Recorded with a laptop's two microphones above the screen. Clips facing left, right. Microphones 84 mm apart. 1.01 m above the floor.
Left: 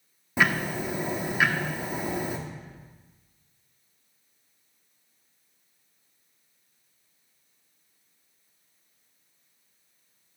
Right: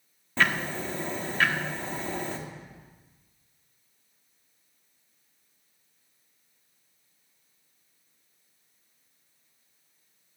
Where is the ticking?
10° left (ahead or behind), 1.2 m.